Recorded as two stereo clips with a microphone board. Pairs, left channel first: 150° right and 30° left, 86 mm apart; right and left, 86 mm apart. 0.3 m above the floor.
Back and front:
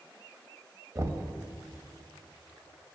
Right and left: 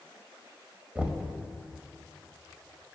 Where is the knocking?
20° left, 0.7 m.